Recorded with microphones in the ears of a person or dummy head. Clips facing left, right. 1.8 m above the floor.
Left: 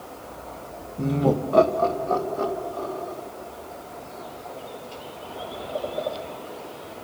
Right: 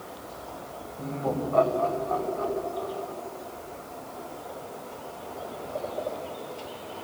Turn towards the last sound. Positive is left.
turn(degrees=55)  # may be behind; listen again after turning